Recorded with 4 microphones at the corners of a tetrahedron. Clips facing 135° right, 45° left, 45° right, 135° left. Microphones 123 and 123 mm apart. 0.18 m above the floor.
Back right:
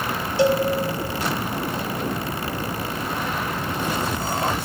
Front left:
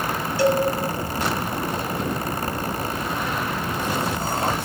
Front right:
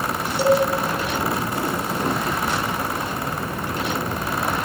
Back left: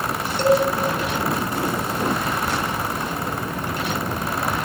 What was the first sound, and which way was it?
A cowbell, 115° right.